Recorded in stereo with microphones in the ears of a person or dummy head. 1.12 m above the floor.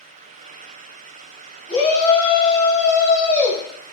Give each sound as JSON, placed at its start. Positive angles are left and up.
{"t": 1.7, "sound": "a shout", "side_deg": 15, "distance_m": 1.6}